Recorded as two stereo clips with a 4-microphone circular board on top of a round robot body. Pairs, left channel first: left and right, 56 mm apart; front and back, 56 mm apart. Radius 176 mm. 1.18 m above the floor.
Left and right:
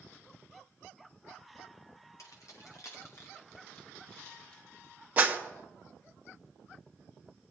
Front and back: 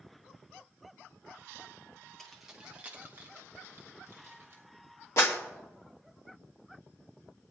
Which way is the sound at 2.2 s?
80° left.